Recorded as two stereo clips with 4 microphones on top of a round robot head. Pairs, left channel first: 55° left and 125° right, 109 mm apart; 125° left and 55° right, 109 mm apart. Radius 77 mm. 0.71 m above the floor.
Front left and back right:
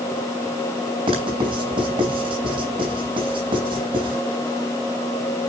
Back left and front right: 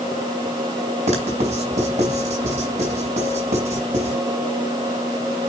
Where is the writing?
80° right, 4 m.